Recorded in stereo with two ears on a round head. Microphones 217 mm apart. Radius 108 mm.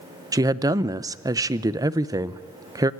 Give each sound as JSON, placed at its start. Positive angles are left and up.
{"t": 0.3, "sound": "a woman speaking", "side_deg": -15, "distance_m": 0.7}